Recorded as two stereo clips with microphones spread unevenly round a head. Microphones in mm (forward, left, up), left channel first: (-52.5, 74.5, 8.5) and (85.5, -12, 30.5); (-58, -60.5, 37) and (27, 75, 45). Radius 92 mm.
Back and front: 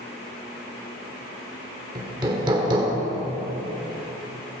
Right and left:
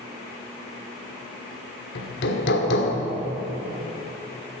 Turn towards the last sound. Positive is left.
turn(degrees=-100)